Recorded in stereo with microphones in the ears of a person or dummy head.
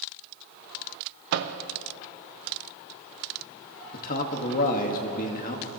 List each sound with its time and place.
1.3 s a microwave: 50° right (ahead or behind), 0.6 m
3.9 s a man speaking: 50° left (ahead or behind), 1.4 m